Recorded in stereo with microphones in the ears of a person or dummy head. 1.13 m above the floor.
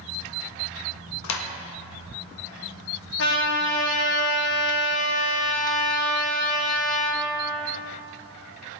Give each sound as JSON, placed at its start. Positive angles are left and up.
{"t": 1.2, "sound": "a clap", "side_deg": 85, "distance_m": 1.0}
{"t": 3.2, "sound": "a trumpet", "side_deg": 60, "distance_m": 1.4}